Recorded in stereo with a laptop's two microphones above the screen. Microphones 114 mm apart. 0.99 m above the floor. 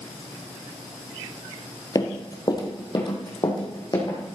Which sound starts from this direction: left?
Running footsteps, at 1.9 s.